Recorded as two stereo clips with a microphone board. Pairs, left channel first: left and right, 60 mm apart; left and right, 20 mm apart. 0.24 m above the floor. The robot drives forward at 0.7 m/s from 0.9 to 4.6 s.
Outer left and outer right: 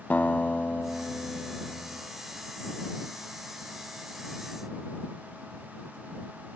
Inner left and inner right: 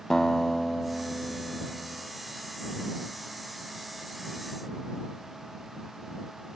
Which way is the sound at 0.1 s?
25° left (ahead or behind).